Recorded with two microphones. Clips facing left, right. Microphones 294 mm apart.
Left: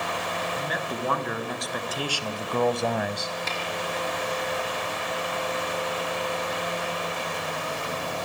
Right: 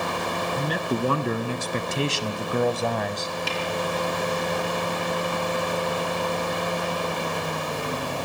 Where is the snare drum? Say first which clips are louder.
Right 4 dB; 40° right (ahead or behind), 5 m.